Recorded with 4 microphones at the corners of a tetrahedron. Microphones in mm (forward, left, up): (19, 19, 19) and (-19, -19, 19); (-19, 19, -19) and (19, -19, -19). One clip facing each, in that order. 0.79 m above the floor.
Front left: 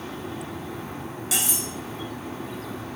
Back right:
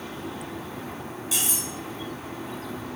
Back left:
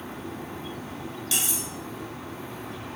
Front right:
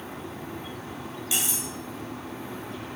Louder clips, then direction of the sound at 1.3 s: Front left 2 dB, even; 35° left.